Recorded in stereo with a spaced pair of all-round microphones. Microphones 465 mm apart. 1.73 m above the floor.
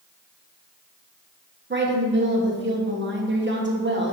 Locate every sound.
1.7 s a woman speaking: 25° right (ahead or behind), 1.2 m